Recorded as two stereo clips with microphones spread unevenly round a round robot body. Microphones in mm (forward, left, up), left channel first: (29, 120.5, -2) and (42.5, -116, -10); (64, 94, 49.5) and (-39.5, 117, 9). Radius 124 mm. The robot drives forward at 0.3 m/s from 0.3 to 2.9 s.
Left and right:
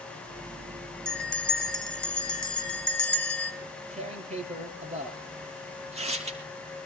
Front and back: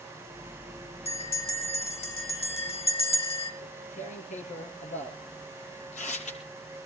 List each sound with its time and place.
1.1 s a bell: 5° left, 4.5 m; by 3.5 s 10° left, 4 m
3.6 s tearing paper: 20° right, 5 m